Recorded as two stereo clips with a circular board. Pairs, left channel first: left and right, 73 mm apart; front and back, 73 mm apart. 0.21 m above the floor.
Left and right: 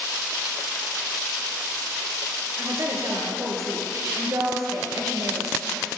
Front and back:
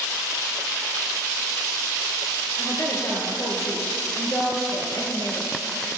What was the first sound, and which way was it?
A woman speaking, 45° right.